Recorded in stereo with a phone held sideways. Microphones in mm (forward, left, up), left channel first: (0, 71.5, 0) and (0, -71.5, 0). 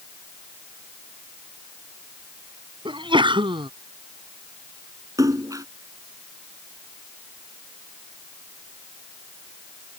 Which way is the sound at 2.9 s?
35° right (ahead or behind).